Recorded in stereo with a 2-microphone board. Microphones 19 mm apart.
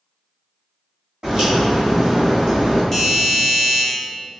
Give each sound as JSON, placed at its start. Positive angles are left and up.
{"t": 1.2, "sound": "a crack", "side_deg": -45, "distance_m": 1.4}
{"t": 2.9, "sound": "a doorbell", "side_deg": 10, "distance_m": 1.4}